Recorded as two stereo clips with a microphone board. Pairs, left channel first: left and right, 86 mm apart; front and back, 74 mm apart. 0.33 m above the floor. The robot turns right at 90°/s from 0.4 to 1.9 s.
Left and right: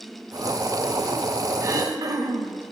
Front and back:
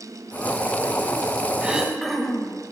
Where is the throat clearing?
115° right, 0.6 m; by 2.6 s 90° right, 0.6 m.